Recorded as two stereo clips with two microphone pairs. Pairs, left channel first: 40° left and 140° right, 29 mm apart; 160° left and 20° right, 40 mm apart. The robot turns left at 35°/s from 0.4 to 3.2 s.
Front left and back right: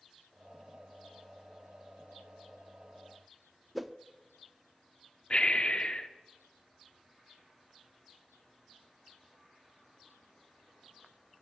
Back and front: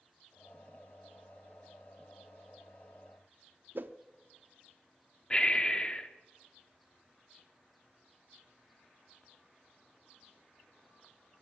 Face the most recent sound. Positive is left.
turn(degrees=95)